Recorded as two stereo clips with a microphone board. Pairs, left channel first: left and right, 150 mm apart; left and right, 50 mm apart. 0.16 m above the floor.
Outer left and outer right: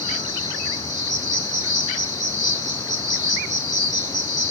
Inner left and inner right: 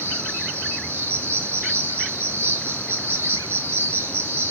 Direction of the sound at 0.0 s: 55° right (ahead or behind).